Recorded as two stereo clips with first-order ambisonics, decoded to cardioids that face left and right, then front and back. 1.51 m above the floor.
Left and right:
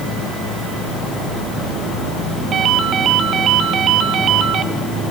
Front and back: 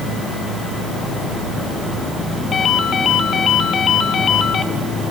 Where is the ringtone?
45° right, 1.0 m.